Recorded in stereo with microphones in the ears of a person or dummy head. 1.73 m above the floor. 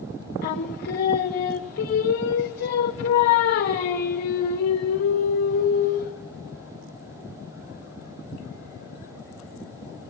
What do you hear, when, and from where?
0.4 s singing: 50° left (ahead or behind), 1.4 m